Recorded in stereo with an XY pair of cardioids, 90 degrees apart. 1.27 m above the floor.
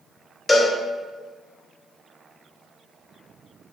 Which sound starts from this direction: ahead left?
A cowbell, at 0.5 s.